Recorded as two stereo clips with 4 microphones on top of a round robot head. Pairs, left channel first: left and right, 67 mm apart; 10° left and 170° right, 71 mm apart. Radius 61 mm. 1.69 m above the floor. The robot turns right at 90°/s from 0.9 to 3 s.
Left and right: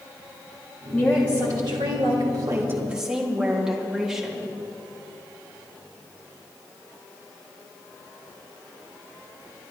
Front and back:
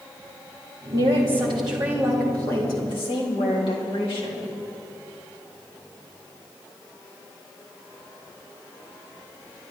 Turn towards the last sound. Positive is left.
turn(degrees=-5)